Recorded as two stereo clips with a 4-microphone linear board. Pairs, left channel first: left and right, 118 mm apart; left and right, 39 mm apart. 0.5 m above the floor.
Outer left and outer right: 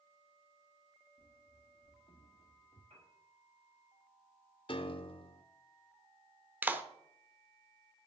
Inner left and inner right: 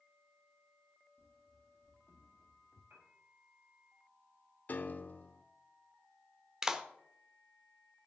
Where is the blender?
I don't hear a blender.